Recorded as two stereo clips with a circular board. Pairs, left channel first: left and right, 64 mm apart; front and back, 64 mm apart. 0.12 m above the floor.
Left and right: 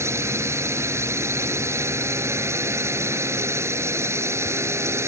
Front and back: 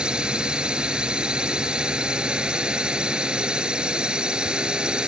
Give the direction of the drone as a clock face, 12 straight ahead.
4 o'clock.